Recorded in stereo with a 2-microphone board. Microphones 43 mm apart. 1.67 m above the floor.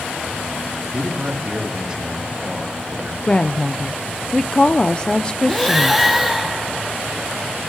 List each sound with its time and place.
0.9 s a man speaking: 25° right (ahead or behind), 3 m
3.3 s a woman speaking: 25° left (ahead or behind), 0.6 m
5.5 s breathing: 5° right (ahead or behind), 1.2 m